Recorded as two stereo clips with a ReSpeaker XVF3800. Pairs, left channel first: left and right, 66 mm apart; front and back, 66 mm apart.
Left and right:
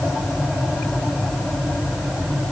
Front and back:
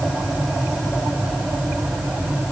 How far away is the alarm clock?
I don't hear an alarm clock.